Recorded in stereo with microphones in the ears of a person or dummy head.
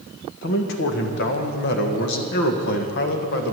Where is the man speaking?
70° left (ahead or behind), 1.5 m.